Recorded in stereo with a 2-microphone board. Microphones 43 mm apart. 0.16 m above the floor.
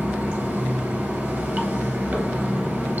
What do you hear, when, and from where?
0.0 s running water: 45° right (ahead or behind), 1.2 m